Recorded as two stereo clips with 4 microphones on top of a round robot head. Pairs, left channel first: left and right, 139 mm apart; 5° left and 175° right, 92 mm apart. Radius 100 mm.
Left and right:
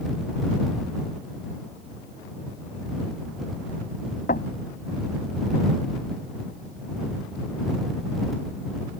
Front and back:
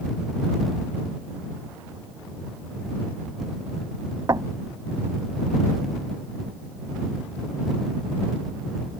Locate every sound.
4.3 s knocking: 135° left